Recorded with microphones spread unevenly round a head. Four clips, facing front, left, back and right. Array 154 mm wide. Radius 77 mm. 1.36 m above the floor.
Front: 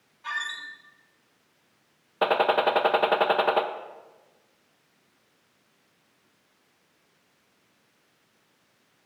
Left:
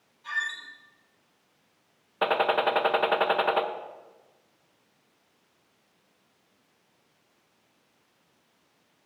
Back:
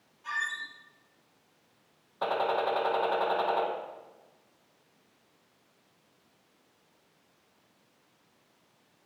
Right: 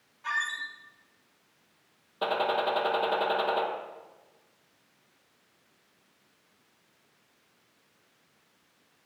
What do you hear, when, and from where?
0.2 s a squeak: 50° right, 2.5 m
2.2 s a gunshot: 20° left, 0.8 m